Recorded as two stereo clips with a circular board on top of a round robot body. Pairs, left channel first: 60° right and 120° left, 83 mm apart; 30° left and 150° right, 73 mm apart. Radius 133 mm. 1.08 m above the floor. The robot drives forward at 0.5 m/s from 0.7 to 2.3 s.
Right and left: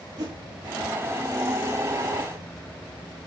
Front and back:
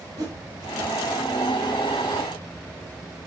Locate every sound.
0.2 s a whoosh: 165° left, 1.7 m